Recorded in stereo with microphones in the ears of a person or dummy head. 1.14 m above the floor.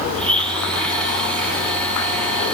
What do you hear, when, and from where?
0.1 s a blender: 5° left (ahead or behind), 7.5 m